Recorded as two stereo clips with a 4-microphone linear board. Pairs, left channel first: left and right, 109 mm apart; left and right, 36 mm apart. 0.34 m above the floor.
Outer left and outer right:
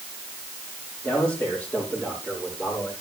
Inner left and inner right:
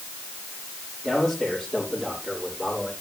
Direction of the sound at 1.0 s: 15° left (ahead or behind).